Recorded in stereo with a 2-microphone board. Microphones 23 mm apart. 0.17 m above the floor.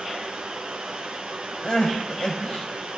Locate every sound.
0.0 s running water: 45° right (ahead or behind), 1.9 m
1.6 s crying: 45° left (ahead or behind), 5 m